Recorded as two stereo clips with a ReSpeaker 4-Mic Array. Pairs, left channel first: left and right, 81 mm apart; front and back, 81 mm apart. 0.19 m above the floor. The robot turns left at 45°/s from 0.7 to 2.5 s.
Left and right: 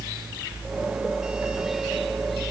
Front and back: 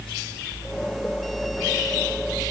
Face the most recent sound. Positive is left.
No sound to turn to.